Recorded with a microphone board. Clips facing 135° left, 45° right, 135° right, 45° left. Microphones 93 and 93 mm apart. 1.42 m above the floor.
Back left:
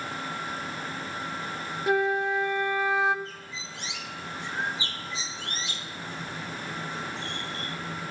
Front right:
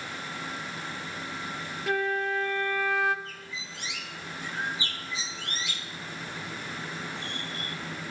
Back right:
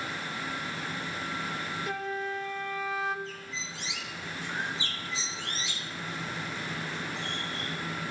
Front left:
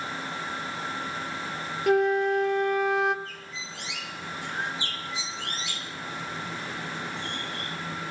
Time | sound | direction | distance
1.9 | a flute | 65° left | 0.8 m
3.2 | a bird | 75° left | 1.7 m